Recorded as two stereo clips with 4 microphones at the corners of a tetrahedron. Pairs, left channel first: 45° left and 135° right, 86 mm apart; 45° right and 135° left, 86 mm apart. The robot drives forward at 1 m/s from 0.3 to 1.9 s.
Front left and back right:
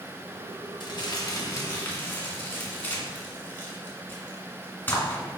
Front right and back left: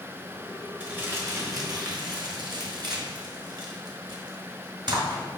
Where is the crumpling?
65° left, 1.5 m; by 5.2 s 110° left, 1.4 m.